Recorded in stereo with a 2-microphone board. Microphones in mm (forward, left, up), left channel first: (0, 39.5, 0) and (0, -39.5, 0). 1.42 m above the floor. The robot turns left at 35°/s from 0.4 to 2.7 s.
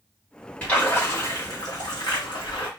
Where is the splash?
160° left, 1.6 m; by 2.7 s 90° left, 1.6 m.